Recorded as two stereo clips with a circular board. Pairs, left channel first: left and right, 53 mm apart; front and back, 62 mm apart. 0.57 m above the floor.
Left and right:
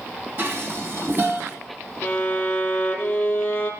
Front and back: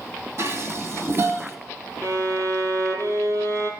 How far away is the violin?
About 3 m.